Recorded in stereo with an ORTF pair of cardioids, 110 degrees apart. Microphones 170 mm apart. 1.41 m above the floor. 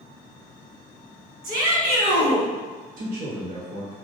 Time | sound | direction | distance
1.4 | a shout | 65° right | 1.5 m
3.0 | a man speaking | 55° right | 1.0 m